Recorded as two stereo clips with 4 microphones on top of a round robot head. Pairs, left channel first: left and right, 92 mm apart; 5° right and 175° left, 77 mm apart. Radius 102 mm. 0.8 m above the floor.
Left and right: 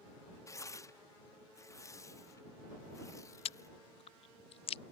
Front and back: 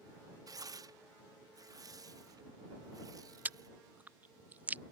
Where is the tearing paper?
140° left.